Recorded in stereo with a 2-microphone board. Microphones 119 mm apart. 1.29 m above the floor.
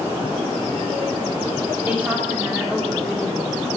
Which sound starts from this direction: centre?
A woman speaking, at 1.9 s.